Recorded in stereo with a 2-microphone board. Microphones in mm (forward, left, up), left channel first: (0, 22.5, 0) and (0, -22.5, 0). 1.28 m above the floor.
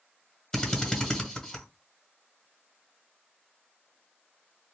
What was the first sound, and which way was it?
A drill, 15° left (ahead or behind).